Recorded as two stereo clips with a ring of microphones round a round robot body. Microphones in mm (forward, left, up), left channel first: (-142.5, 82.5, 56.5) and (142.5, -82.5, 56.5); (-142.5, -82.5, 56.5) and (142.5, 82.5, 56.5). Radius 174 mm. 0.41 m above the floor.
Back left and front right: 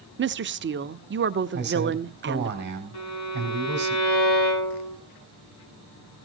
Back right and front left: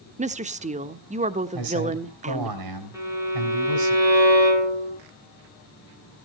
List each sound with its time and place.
0.2 s a woman speaking: 20° right, 0.9 m
1.5 s a man speaking: 30° left, 3 m
2.9 s a violin: 110° left, 7 m